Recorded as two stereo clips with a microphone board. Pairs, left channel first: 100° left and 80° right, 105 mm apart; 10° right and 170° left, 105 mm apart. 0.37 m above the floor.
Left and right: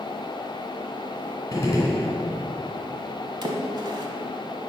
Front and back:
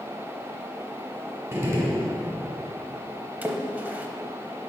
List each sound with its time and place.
1.5 s a gunshot: 115° left, 1.6 m
3.4 s a splash: 115° right, 0.7 m